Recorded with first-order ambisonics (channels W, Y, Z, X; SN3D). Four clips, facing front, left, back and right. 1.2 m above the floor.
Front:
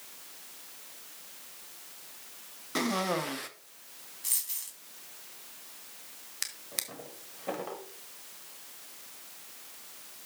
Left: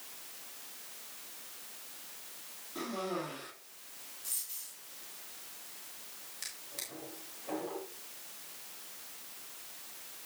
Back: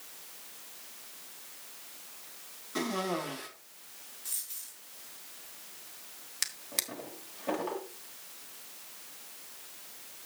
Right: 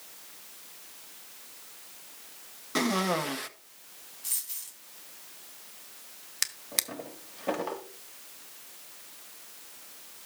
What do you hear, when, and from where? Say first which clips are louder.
2.8 s a cough: right 10 dB, front 3 dB; 65° right, 1.4 m
4.2 s a dropped coin: right 6 dB, front 6 dB; 25° right, 2 m
6.4 s a drawer: right 12 dB, back 2 dB; 95° right, 1.3 m